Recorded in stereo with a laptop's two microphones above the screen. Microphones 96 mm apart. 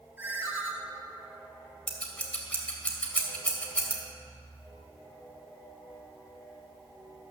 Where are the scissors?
15° left (ahead or behind), 2.5 m.